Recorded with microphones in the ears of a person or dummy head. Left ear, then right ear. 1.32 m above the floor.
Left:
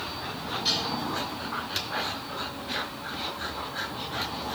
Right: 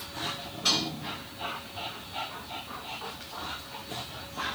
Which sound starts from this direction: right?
Dishes clattering, at 0.7 s.